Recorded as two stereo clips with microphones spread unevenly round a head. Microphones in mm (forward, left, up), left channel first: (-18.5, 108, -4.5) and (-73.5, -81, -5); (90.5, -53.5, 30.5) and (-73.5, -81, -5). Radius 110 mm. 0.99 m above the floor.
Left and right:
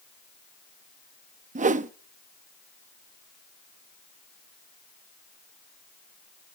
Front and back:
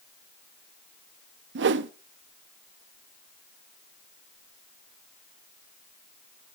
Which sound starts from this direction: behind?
A whoosh, at 1.6 s.